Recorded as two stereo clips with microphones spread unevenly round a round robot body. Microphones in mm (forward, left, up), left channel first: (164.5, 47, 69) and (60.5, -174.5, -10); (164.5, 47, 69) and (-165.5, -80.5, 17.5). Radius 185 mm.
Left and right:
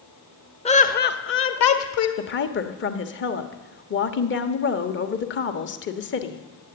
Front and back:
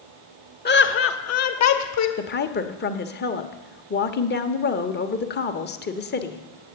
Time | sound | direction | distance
0.7 | laughter | 10° right | 1.0 m
2.2 | a woman speaking | 65° left | 1.1 m